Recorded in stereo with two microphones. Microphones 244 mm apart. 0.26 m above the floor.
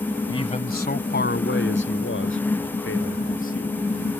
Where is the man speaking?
20° left (ahead or behind); by 4.1 s 60° left (ahead or behind).